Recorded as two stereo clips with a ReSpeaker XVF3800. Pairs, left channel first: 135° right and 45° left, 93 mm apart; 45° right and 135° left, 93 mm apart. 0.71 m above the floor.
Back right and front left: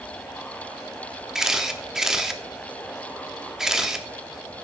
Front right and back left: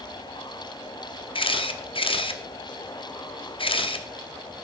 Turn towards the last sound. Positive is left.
turn(degrees=-40)